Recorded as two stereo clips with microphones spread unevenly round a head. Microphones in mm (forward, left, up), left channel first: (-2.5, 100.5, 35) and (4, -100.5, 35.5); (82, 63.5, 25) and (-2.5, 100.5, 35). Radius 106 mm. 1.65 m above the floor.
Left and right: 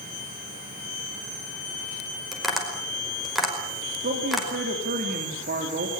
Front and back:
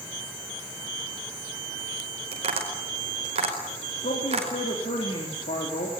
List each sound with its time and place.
2.3 s tapping: straight behind, 5 m
4.0 s a man speaking: 40° right, 4 m